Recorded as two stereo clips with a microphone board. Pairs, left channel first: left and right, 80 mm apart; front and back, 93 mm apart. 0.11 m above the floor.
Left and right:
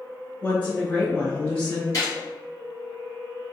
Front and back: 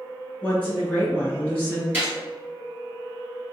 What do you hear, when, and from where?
0.4 s a woman speaking: 55° left, 1.2 m
1.9 s a gunshot: 115° left, 1.9 m